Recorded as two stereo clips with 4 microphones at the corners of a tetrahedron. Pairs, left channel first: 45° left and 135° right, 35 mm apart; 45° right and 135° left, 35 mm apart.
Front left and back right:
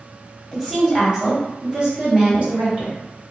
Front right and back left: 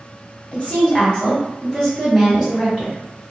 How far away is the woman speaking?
About 1.8 m.